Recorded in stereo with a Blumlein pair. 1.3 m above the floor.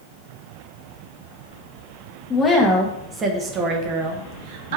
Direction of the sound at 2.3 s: 15° left.